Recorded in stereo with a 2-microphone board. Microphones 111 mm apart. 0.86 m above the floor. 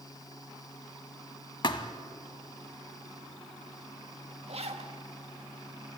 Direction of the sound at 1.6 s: 45° left (ahead or behind).